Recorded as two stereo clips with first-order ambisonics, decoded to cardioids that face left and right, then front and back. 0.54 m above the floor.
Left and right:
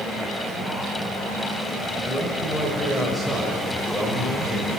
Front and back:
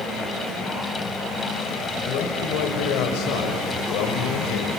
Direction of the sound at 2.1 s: 10° left.